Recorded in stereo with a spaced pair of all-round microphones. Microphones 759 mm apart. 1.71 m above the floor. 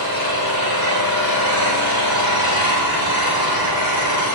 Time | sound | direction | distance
0.0 | an engine running | 25° left (ahead or behind) | 3.5 m